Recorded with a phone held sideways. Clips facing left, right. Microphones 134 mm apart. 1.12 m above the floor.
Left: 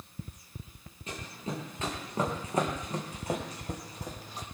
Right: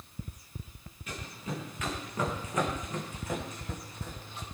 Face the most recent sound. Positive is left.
turn(degrees=40)  # may be behind; listen again after turning